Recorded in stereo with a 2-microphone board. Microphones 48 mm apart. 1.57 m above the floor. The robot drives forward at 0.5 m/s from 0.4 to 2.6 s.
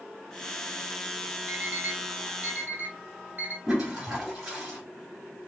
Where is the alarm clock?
35° right (ahead or behind), 1.0 m.